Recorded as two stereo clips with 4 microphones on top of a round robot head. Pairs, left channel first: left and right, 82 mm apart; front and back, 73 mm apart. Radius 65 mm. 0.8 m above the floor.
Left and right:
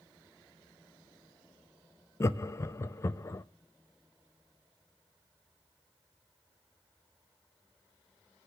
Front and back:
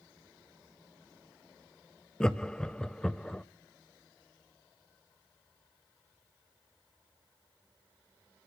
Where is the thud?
I don't hear a thud.